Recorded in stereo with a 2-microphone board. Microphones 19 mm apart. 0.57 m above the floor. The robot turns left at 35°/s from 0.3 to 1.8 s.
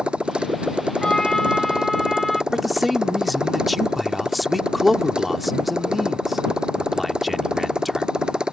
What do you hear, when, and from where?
0.0 s a motorcycle: 75° right; by 8.5 s 125° right
1.0 s a trumpet: 45° left (ahead or behind); by 2.4 s 20° left (ahead or behind)
2.5 s a man speaking: 5° right (ahead or behind)